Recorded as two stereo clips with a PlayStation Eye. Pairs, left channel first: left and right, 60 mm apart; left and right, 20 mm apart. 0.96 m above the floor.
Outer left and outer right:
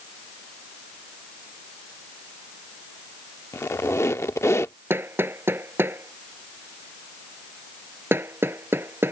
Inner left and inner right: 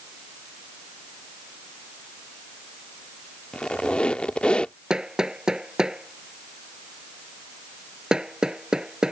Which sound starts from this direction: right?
Hammering, at 4.9 s.